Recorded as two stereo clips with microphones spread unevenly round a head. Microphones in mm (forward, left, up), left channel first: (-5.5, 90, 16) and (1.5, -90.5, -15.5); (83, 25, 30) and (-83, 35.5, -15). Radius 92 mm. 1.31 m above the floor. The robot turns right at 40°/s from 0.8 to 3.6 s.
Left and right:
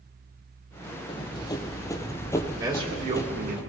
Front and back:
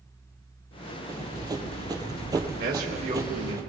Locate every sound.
1.1 s running footsteps: 95° left, 1.5 m; by 3.6 s 100° left, 1.5 m
2.6 s a man speaking: 155° right, 2 m; by 3.6 s 115° right, 2 m